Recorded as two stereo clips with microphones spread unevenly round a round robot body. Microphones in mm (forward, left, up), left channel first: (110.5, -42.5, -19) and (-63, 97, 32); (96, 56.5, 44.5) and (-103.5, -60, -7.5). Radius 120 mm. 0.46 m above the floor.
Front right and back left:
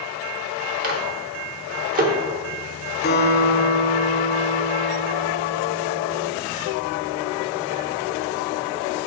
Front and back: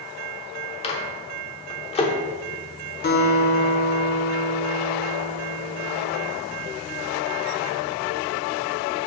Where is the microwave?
95° left, 0.9 m.